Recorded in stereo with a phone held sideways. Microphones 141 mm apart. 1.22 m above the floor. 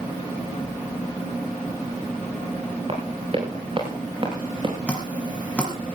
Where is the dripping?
10° left (ahead or behind), 5 m.